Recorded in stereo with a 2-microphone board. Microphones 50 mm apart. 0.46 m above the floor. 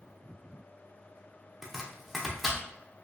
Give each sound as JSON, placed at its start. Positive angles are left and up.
{"t": 1.6, "sound": "chopping", "side_deg": 0, "distance_m": 0.5}